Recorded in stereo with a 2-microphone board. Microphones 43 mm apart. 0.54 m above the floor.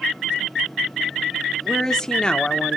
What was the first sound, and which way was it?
A woman speaking, 10° left (ahead or behind).